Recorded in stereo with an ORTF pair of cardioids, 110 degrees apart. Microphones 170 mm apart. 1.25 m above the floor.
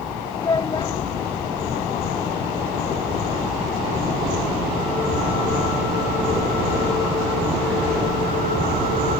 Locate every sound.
0.3 s a child speaking: 25° left